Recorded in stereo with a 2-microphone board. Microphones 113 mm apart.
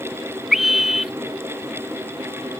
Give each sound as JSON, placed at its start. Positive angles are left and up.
{"t": 0.5, "sound": "a scream", "side_deg": -5}